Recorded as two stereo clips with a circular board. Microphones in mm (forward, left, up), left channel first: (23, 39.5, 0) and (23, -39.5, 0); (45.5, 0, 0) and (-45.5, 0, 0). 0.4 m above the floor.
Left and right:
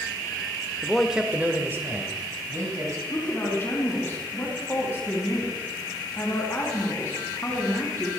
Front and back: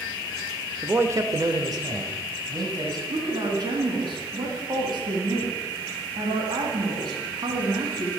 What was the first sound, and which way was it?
A man speaking, 155° left.